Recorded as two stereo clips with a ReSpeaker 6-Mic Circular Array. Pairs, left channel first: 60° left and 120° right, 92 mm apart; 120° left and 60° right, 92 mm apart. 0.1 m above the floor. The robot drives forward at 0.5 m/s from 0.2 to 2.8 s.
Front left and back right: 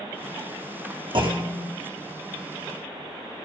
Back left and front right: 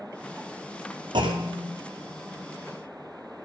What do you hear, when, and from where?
1.1 s a clunk: 95° right, 2.5 m; by 1.7 s 100° right, 2.5 m